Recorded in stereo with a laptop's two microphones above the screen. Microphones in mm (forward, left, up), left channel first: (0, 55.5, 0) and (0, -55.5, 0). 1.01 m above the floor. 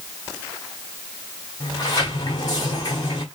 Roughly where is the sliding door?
Left.